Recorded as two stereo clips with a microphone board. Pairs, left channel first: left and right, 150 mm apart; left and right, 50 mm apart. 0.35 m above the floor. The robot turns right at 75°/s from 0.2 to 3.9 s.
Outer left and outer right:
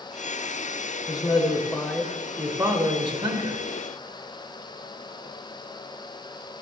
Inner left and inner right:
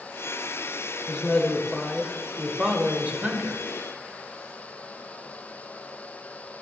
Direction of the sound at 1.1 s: 100° left.